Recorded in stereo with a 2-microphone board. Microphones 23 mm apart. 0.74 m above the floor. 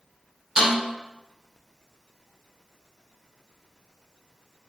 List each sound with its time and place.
0.6 s a snare drum: 30° right (ahead or behind), 1.9 m